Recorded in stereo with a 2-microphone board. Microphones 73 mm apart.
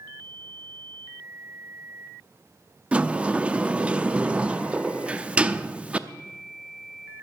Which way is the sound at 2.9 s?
15° right (ahead or behind).